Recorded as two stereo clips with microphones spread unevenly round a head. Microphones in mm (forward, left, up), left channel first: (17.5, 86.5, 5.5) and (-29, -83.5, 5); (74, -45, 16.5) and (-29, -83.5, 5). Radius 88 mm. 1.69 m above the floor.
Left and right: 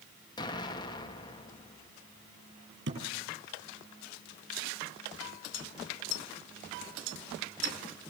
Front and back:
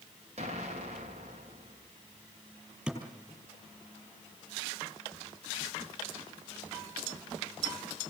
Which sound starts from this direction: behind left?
An explosion, at 0.4 s.